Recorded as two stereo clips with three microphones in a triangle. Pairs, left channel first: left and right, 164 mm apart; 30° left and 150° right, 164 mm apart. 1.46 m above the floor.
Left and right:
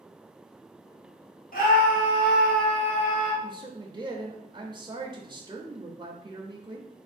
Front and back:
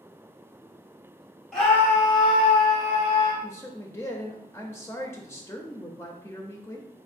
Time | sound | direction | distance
1.5 | a scream | 115° left | 1.7 m
3.4 | a man speaking | 40° right | 0.5 m